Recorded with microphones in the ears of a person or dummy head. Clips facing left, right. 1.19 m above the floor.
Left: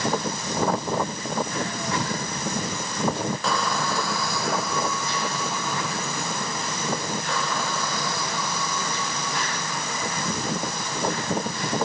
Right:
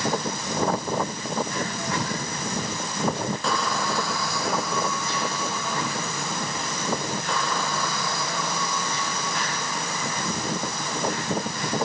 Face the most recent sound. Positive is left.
No sound to turn to.